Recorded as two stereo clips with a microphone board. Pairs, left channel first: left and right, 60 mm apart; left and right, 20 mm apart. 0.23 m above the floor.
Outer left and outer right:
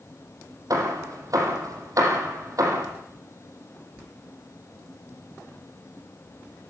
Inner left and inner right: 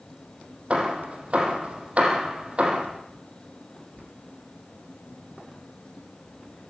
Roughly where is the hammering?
Right.